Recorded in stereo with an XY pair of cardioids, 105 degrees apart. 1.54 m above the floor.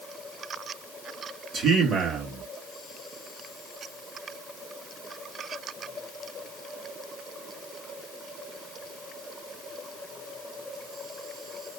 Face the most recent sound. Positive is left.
turn(degrees=-60)